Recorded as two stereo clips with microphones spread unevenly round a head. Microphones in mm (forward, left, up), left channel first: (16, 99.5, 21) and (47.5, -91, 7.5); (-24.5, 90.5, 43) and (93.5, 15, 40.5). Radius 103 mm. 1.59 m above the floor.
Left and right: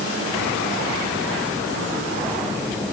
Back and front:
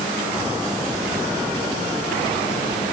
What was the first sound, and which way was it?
Only background noise.